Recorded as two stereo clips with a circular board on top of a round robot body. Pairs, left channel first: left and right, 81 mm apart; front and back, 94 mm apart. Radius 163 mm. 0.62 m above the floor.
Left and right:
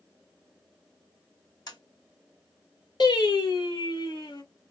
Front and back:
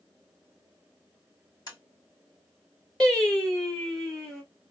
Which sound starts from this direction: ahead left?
Tapping, at 1.7 s.